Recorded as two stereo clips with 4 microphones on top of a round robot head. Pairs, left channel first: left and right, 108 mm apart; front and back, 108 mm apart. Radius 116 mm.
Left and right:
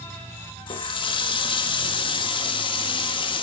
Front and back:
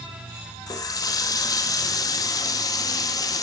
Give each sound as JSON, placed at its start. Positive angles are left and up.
{"t": 0.7, "sound": "a running tap", "azimuth_deg": 55, "distance_m": 1.5}